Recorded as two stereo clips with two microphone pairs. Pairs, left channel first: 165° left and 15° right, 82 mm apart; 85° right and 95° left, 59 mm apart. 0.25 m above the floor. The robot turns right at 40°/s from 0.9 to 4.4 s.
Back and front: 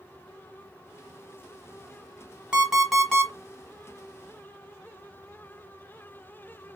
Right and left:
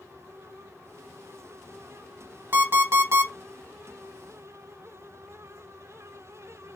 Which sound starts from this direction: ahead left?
An alarm clock, at 2.5 s.